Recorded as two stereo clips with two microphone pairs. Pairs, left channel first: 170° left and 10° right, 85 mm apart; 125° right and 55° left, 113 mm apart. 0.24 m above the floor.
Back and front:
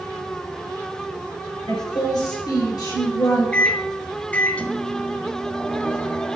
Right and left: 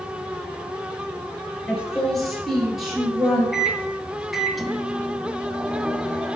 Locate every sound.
1.7 s a woman speaking: 155° left, 3.5 m; by 3.4 s 140° left, 4.5 m
3.5 s a microwave: 135° left, 0.8 m